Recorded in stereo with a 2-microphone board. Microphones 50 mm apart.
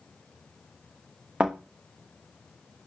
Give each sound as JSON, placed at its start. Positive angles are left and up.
{"t": 1.4, "sound": "a thud", "side_deg": -25, "distance_m": 2.0}